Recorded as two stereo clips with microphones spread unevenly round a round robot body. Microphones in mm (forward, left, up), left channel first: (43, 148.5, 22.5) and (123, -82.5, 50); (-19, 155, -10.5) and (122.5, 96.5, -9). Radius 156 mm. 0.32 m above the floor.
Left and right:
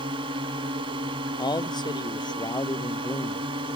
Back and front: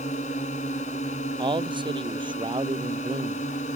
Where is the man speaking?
35° left.